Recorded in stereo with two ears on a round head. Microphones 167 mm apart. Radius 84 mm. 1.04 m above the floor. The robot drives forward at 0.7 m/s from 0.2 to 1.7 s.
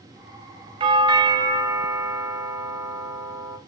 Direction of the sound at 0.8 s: 25° right (ahead or behind).